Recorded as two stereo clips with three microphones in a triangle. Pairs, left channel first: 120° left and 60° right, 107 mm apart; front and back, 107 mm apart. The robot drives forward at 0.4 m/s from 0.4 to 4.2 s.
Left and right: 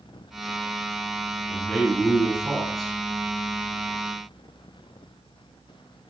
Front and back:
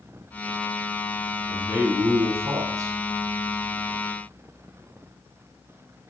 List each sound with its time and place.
1.5 s a man speaking: 120° right, 1.3 m; by 3.0 s 150° right, 1.5 m